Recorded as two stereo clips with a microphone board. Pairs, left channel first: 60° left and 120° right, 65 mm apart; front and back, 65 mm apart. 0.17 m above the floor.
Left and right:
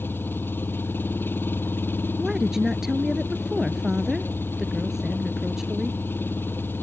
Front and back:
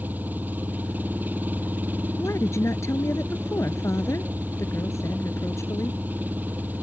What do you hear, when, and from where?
0.0 s an engine running: 120° left
2.2 s a woman speaking: 40° right